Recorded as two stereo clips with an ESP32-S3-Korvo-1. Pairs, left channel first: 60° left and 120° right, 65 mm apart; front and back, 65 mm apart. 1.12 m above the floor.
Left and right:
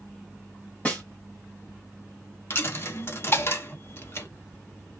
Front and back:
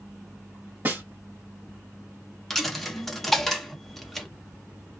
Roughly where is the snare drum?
Behind left.